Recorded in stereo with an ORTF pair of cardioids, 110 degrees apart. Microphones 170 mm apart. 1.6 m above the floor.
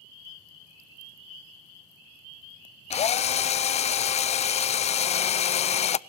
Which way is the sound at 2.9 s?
40° left.